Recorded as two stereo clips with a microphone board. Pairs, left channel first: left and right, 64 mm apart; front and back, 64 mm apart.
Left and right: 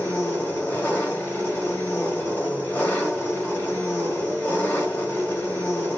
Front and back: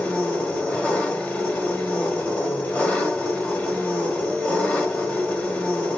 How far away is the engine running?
About 1.2 m.